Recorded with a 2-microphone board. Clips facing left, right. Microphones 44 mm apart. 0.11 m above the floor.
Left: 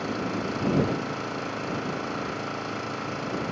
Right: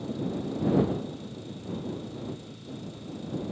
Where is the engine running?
90° left.